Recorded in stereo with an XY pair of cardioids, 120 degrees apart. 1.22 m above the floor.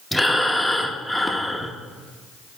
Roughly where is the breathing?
Ahead.